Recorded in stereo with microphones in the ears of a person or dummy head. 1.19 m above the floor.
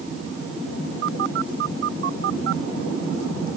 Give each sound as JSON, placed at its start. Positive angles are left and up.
{"t": 1.0, "sound": "a phone buzzing", "side_deg": -55}